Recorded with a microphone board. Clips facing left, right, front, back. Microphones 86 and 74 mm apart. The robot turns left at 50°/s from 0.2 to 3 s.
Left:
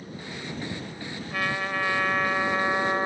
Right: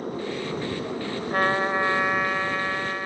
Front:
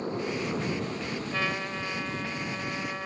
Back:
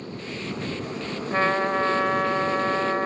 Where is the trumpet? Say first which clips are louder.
Right 6 dB, back 12 dB; 130° right; by 3.1 s 145° left.